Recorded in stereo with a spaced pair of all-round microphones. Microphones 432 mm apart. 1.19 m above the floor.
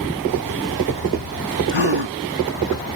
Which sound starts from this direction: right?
A gasp, at 1.7 s.